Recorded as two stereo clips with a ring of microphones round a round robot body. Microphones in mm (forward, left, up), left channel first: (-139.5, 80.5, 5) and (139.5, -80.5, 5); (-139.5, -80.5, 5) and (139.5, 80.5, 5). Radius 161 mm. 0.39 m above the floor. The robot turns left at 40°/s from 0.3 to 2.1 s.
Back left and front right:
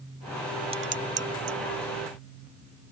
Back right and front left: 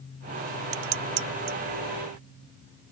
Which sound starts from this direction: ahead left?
Dishes clattering, at 0.7 s.